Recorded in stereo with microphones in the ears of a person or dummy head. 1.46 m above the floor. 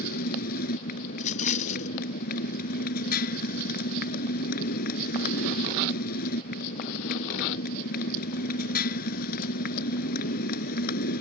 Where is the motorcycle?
50° left (ahead or behind).